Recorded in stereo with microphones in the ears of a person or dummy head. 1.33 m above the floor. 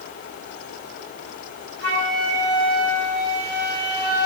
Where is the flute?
80° right, 2.0 m.